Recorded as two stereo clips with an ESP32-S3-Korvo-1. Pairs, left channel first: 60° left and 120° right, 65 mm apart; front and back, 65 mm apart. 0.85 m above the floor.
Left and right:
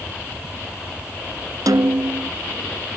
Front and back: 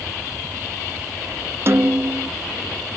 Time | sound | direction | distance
1.7 | a snare drum | 130° right | ?